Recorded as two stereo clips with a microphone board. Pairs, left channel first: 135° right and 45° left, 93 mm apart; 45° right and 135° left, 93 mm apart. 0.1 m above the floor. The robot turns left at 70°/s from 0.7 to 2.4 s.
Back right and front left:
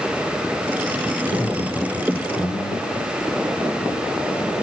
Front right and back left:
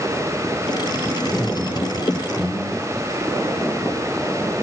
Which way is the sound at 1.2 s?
85° right.